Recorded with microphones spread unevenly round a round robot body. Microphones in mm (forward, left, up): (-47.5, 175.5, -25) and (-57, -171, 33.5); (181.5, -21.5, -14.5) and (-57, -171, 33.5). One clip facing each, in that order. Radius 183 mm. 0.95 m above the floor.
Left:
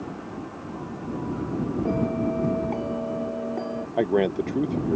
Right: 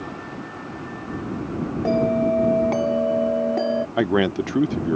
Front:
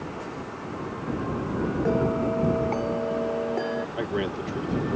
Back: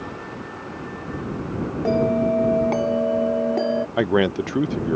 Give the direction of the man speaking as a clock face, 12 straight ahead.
5 o'clock.